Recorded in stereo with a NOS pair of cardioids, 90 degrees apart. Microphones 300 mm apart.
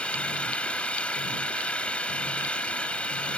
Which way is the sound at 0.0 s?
5° left.